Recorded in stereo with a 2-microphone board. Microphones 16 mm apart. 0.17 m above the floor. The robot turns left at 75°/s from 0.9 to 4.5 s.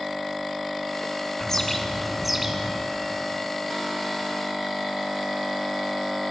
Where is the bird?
55° left, 2 m; by 2.8 s 50° right, 2 m.